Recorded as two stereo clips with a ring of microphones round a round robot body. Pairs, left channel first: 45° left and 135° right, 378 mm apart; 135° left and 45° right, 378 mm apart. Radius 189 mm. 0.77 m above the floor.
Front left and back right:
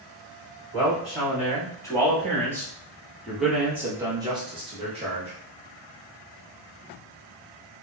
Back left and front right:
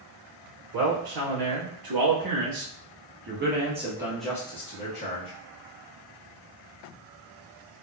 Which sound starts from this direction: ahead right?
A man speaking, at 0.7 s.